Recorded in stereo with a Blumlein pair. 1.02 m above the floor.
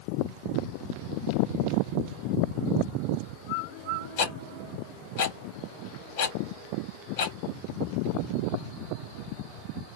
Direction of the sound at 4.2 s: 50° left.